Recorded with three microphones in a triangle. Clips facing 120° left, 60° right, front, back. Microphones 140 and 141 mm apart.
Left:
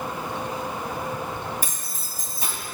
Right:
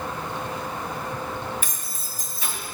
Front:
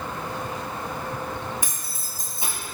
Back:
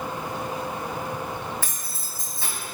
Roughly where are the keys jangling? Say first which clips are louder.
Left 1 dB, front 1 dB; left.